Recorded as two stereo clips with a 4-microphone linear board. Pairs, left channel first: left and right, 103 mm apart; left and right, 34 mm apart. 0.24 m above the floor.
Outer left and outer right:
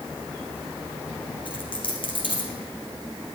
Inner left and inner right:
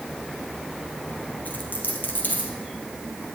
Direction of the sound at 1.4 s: 55° left (ahead or behind).